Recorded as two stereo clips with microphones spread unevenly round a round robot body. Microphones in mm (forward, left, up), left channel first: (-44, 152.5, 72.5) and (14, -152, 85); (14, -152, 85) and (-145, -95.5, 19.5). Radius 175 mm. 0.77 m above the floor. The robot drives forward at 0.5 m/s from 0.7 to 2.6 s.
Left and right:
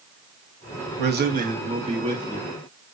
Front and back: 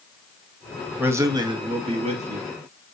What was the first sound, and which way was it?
A man speaking, 130° right.